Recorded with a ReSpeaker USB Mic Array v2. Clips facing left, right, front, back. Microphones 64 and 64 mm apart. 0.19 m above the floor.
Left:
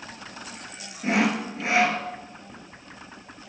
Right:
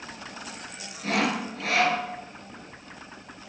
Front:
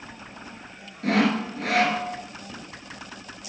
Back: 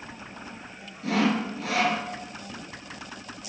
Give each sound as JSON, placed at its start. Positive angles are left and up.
{"t": 1.0, "sound": "sawing", "azimuth_deg": 25, "distance_m": 1.6}